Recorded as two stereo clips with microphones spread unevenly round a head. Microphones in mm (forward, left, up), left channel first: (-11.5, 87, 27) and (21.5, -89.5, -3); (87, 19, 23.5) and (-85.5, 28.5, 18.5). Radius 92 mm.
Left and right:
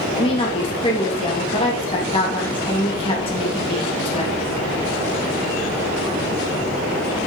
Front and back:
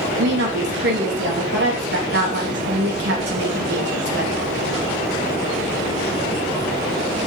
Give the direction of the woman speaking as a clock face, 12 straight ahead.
7 o'clock.